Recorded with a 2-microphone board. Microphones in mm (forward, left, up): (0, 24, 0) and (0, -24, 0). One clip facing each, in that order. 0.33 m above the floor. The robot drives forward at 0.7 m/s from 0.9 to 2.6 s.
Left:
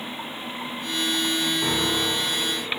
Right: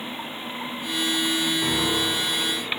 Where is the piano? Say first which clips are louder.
Even; 10° left (ahead or behind), 6 m.